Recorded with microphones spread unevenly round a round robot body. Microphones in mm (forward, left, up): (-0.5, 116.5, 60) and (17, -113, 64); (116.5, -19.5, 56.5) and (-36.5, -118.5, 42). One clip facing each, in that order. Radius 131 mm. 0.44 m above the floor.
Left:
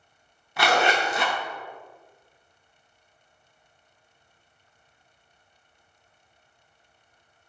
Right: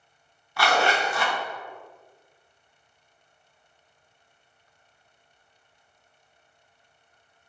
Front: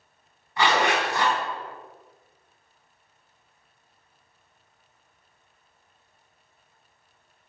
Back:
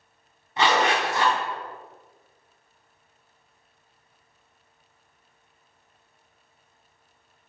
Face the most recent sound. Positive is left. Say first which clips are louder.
# left 1 dB, back 1 dB
turn(degrees=155)